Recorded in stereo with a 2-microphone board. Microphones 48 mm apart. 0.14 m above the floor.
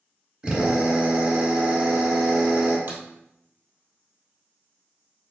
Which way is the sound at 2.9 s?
50° right (ahead or behind).